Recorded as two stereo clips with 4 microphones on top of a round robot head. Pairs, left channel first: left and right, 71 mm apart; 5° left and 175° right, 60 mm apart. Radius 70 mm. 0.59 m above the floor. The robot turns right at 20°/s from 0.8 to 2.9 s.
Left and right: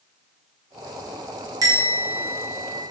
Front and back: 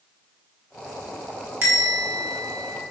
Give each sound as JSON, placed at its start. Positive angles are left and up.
{"t": 1.6, "sound": "a bell", "azimuth_deg": -115, "distance_m": 0.8}